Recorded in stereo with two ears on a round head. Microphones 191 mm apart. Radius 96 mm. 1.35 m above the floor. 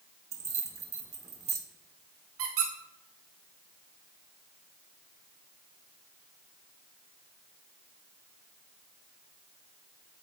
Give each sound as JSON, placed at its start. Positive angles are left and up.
{"t": 0.3, "sound": "keys jangling", "side_deg": -15, "distance_m": 1.0}
{"t": 2.4, "sound": "a squeak", "side_deg": -70, "distance_m": 1.8}